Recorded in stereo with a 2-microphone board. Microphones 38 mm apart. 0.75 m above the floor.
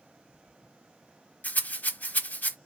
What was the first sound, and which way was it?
A rattle, 50° left (ahead or behind).